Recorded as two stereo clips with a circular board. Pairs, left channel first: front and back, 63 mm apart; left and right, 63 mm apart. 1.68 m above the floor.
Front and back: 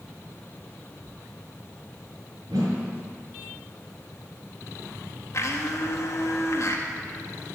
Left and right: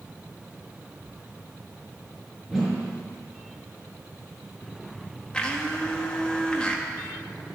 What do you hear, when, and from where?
2.5 s a whoosh: 175° right, 5 m
5.3 s a blender: 15° left, 1.5 m